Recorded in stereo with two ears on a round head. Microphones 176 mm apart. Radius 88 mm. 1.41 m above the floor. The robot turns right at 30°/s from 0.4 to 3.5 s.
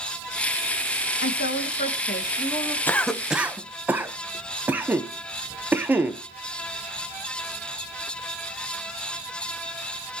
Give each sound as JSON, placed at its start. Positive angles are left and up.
{"t": 1.2, "sound": "a woman speaking", "azimuth_deg": 120, "distance_m": 2.0}
{"t": 2.9, "sound": "a cough", "side_deg": 10, "distance_m": 1.1}